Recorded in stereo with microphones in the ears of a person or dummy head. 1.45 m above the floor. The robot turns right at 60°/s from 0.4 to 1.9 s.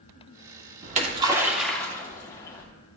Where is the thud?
I don't hear a thud.